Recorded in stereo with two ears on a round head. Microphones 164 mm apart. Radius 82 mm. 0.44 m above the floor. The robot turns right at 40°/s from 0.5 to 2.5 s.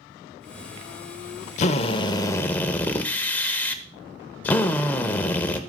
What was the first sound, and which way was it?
A drill, 130° left.